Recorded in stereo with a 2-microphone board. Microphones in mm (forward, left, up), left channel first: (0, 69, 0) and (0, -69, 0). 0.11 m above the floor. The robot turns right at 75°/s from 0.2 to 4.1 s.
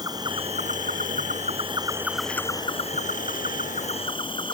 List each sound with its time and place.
0.0 s an insect: 150° right; by 4.5 s 140° left